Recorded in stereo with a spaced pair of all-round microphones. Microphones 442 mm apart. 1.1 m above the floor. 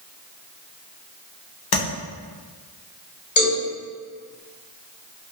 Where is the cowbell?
80° left, 1.6 m.